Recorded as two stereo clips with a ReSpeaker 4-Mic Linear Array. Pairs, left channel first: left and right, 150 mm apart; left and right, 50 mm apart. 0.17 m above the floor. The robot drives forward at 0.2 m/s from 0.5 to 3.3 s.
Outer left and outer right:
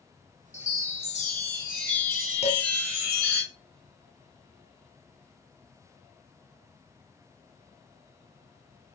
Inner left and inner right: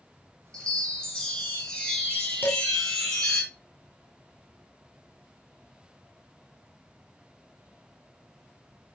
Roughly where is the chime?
Centre.